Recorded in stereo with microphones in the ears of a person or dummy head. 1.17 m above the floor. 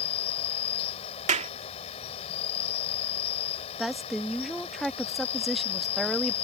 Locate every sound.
0.0 s an insect: 35° left (ahead or behind)
1.3 s a clap: 35° right (ahead or behind)
3.8 s a woman speaking: 5° left (ahead or behind)